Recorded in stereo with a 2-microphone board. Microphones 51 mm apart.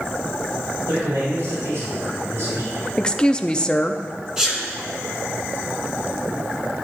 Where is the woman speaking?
20° left (ahead or behind), 0.5 m.